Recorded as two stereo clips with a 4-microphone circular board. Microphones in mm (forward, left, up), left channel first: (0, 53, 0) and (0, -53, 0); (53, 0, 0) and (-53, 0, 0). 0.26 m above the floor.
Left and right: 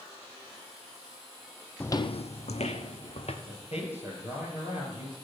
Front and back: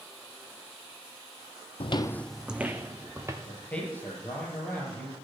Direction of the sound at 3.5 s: 75° left.